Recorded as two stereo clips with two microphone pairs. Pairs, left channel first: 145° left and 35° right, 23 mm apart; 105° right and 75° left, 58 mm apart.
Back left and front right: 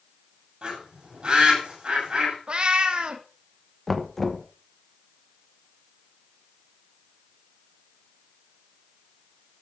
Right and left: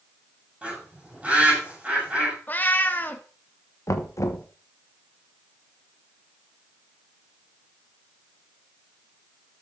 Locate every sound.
0.6 s a bird: 5° left, 7 m
2.5 s a cat meowing: 60° right, 1.1 m
3.9 s knocking: 140° right, 1.1 m